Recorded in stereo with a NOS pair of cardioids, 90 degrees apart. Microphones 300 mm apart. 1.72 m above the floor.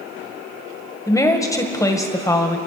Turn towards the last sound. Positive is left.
turn(degrees=10)